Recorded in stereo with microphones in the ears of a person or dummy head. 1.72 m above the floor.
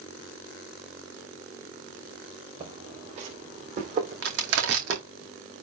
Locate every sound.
2.6 s footsteps: 35° right (ahead or behind), 5 m; by 5.0 s 40° right (ahead or behind), 4 m
4.2 s crushing: 60° right (ahead or behind), 2 m